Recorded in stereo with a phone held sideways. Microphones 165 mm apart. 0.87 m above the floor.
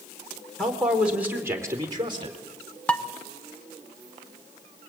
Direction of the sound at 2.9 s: 5° left (ahead or behind).